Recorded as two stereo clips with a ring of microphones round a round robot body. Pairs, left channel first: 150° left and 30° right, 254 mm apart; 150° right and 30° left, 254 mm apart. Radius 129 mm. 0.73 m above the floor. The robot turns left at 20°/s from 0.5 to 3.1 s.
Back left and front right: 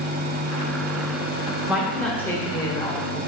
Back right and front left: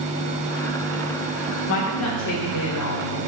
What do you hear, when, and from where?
1.7 s a woman speaking: 115° right, 2.5 m; by 3.2 s 145° right, 2.5 m